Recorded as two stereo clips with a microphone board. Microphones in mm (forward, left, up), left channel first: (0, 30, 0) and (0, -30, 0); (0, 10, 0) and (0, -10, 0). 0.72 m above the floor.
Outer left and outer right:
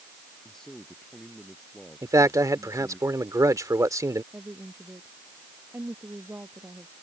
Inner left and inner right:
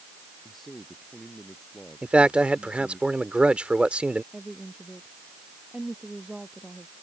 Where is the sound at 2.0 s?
65° right (ahead or behind).